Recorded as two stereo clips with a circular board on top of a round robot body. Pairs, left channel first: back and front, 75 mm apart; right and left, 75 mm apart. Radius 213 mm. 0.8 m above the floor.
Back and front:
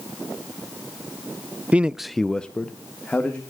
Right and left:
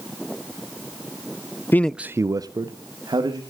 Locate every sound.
1.7 s a man speaking: 60° right, 0.6 m; by 3.4 s 105° left, 1.7 m